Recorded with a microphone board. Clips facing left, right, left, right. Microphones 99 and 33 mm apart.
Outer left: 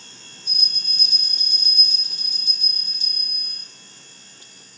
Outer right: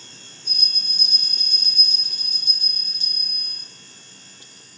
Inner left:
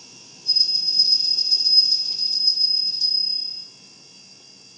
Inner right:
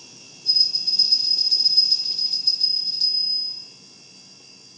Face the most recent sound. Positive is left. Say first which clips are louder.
# even, even
turn(degrees=-65)  # may be behind; listen again after turning